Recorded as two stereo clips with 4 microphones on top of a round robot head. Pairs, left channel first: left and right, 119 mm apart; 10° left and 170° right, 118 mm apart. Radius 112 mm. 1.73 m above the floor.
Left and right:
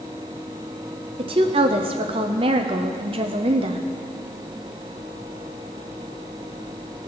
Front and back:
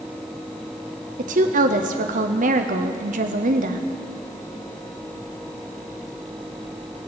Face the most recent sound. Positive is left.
turn(degrees=-145)